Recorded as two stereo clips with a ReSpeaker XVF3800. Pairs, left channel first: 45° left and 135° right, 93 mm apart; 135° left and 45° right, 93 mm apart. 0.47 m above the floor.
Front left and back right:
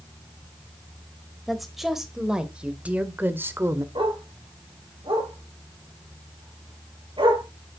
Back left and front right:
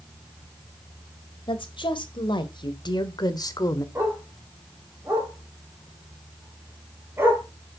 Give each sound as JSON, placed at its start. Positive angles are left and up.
{"t": 1.5, "sound": "a woman speaking", "azimuth_deg": 135, "distance_m": 2.0}
{"t": 4.0, "sound": "a dog barking", "azimuth_deg": -110, "distance_m": 4.0}